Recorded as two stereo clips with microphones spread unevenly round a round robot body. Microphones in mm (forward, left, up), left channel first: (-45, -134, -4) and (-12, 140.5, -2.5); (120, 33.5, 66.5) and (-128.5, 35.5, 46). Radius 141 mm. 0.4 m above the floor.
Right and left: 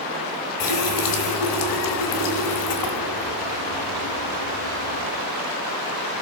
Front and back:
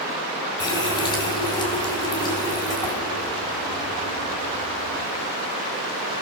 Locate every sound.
0.6 s a running tap: 75° right, 2.5 m